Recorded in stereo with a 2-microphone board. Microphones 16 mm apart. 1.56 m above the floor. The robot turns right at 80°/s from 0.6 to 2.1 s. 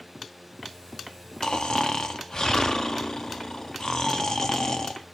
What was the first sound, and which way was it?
Snoring, 75° left.